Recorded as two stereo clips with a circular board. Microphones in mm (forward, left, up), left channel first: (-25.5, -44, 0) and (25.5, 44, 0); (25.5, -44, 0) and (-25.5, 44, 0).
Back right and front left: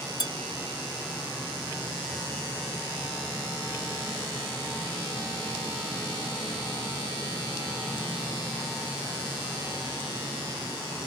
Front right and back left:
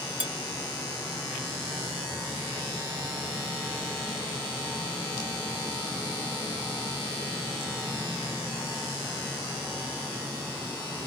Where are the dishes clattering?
165° right, 3 m.